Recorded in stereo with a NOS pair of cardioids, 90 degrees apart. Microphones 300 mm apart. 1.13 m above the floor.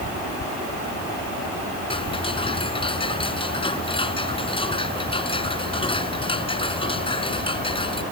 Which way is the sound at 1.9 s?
15° left.